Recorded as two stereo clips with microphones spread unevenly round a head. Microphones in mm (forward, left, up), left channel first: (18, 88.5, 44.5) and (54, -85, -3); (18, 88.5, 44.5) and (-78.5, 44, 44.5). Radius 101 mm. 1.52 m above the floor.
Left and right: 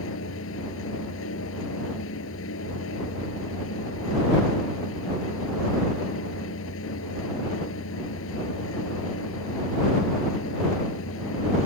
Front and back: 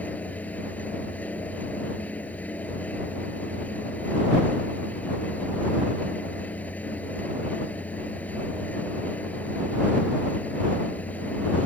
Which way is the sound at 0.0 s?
100° left.